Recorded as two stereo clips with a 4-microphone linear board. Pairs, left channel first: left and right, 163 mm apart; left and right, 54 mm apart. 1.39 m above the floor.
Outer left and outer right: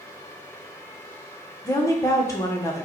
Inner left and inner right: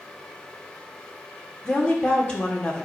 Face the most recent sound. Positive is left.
turn(degrees=20)  # may be behind; listen again after turning